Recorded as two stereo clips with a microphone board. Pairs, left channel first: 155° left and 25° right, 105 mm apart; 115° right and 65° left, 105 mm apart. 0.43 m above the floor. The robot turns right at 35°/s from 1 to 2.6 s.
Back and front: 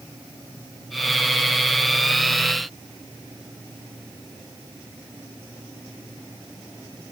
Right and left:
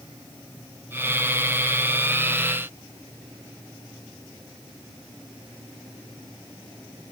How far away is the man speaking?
I don't hear a man speaking.